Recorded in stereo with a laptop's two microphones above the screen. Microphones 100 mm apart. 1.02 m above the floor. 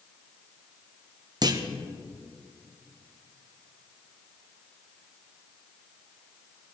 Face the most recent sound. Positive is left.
turn(degrees=-45)  # may be behind; listen again after turning